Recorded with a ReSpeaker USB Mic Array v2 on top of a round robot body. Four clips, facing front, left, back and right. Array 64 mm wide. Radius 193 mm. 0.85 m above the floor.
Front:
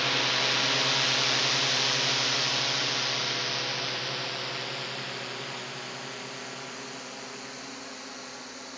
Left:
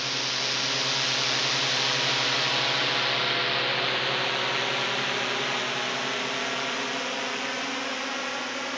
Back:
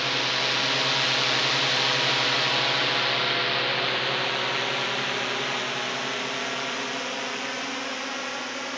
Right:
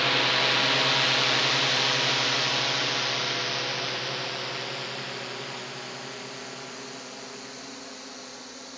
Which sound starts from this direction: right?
A drone, at 0.0 s.